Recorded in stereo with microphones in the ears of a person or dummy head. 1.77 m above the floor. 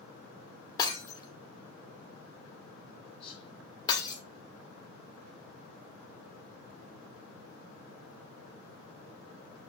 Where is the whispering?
35° left (ahead or behind), 4 m.